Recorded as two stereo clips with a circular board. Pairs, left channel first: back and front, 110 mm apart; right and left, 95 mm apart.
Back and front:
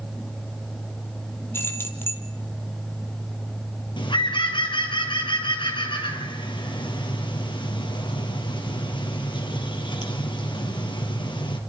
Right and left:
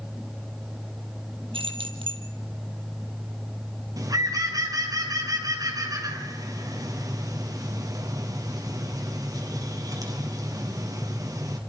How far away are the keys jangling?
About 2.5 m.